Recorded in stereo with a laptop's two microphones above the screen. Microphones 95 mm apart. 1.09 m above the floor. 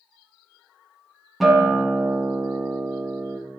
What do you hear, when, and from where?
1.4 s a guitar: centre (ahead or behind), 1.7 m